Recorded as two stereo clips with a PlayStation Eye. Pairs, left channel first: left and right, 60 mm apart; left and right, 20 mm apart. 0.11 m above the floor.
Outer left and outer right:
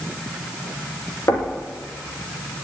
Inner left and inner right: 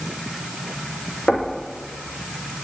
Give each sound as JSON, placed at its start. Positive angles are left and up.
{"t": 1.3, "sound": "knocking", "side_deg": 60, "distance_m": 4.0}